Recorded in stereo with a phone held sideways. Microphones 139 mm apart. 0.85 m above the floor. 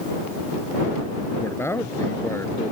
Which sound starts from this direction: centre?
A man speaking, at 1.4 s.